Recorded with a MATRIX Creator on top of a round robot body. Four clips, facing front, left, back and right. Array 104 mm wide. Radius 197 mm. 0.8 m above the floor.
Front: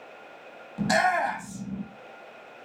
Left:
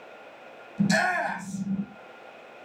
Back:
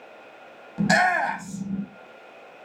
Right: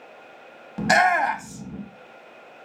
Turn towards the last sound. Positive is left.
turn(degrees=-110)